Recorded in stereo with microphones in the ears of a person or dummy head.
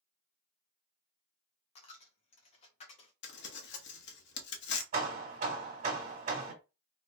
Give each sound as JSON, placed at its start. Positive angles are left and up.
{"t": 1.8, "sound": "a dropped coin", "side_deg": 35, "distance_m": 0.7}
{"t": 3.2, "sound": "crumpling", "side_deg": 55, "distance_m": 0.9}
{"t": 4.9, "sound": "hammering", "side_deg": -40, "distance_m": 1.5}